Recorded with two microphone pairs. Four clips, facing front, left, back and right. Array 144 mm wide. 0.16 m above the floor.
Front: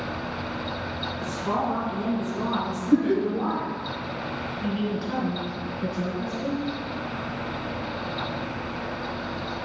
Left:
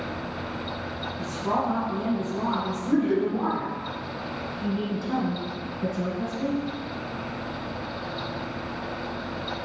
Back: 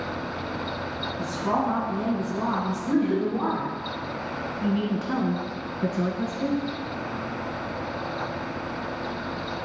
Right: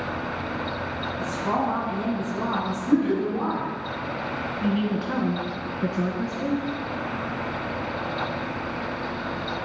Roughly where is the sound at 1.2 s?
Behind.